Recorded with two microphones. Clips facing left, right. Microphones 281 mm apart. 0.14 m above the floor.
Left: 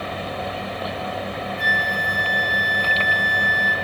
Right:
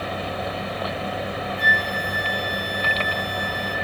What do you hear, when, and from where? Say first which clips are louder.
1.6 s a flute: even; 65° right (ahead or behind), 0.8 m